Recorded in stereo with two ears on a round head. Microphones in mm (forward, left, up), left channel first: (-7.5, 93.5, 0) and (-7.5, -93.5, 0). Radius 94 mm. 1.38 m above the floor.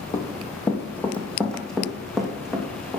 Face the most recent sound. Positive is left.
turn(degrees=-5)  # may be behind; listen again after turning